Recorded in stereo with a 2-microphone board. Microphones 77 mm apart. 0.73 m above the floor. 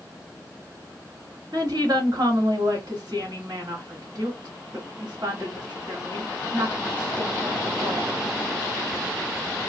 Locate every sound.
1.5 s a woman speaking: 60° right (ahead or behind), 1.7 m